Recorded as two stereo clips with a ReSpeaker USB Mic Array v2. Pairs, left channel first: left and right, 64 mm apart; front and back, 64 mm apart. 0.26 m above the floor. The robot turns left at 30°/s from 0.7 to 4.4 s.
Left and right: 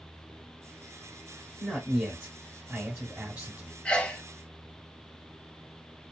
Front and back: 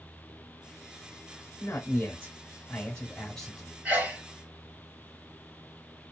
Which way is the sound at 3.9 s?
145° left.